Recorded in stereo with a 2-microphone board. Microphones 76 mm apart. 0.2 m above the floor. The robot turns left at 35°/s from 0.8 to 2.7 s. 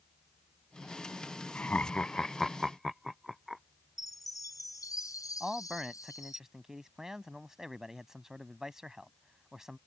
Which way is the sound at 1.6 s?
20° left (ahead or behind).